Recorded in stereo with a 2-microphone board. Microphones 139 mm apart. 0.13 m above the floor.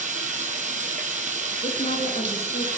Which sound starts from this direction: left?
A woman speaking, at 1.6 s.